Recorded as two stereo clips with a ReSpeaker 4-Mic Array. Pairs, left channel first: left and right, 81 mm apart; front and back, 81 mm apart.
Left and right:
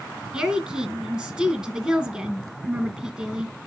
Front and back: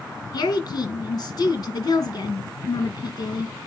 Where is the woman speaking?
15° right, 2.5 m.